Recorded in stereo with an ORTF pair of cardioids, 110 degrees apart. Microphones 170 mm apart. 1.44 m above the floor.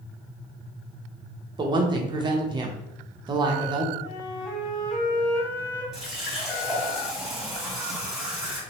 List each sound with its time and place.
1.6 s a woman speaking: 25° right, 0.7 m
4.0 s a flute: 15° left, 1.5 m
5.9 s a running tap: straight ahead, 1.4 m